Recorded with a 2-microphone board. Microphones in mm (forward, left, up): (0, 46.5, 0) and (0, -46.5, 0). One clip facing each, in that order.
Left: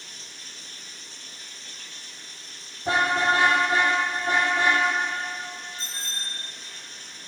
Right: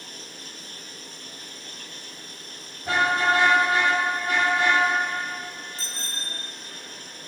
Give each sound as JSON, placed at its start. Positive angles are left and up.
{"t": 0.0, "sound": "running water", "side_deg": -45, "distance_m": 1.1}
{"t": 2.9, "sound": "a car horn", "side_deg": 30, "distance_m": 6.5}
{"t": 5.8, "sound": "a bicycle bell", "side_deg": -85, "distance_m": 6.5}